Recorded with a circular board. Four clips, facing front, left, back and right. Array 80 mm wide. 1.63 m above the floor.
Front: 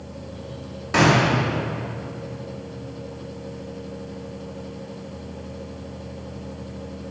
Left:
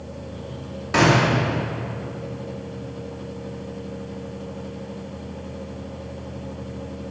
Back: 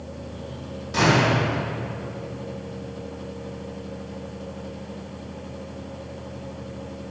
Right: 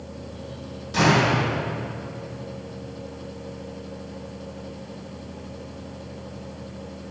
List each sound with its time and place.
0.9 s a gunshot: 50° left, 4 m